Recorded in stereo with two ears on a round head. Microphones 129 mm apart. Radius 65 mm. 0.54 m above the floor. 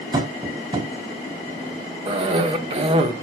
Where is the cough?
40° right (ahead or behind), 1.4 m.